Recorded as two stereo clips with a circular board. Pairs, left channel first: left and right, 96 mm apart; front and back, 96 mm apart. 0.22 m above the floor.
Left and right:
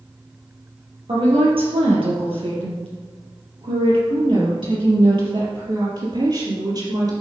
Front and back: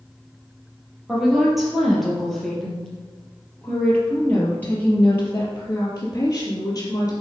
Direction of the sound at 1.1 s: 95° right.